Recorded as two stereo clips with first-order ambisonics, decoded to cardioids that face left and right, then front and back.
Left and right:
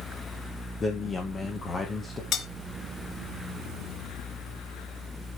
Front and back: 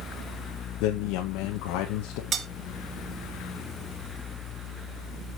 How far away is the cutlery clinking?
About 1.0 m.